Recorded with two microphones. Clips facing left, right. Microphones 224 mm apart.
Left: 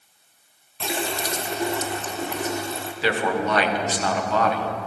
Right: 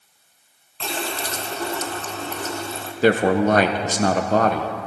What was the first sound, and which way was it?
A running tap, 15° left (ahead or behind).